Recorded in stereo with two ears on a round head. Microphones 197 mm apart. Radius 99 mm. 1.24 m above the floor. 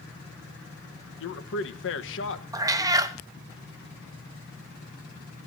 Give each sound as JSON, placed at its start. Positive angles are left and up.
{"t": 1.2, "sound": "a man speaking", "side_deg": 60, "distance_m": 1.3}
{"t": 2.5, "sound": "a cat meowing", "side_deg": -15, "distance_m": 0.8}